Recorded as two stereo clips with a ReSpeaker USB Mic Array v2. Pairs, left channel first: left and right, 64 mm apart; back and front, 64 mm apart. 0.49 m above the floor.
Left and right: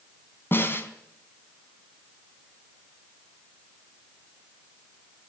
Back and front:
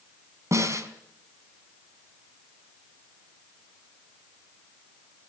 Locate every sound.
0.5 s a snare drum: 35° left, 4 m